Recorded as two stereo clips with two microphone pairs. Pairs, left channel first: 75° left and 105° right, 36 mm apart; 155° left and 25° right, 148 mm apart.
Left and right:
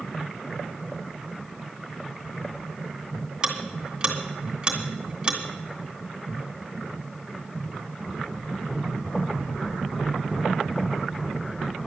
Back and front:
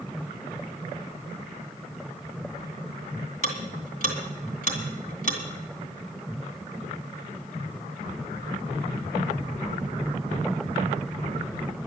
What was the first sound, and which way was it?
Ticking, 175° right.